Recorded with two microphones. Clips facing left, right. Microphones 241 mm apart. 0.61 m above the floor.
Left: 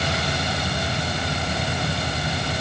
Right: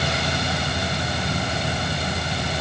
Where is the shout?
No shout in this recording.